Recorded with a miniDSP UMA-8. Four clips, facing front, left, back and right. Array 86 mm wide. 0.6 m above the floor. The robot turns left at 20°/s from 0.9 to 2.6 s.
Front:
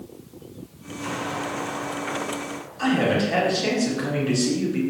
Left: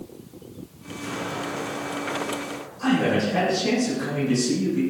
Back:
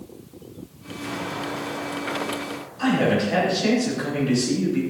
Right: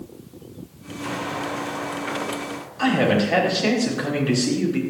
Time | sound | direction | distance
1.0 | an explosion | 45° right | 4.5 m
2.8 | a man speaking | 85° right | 5.5 m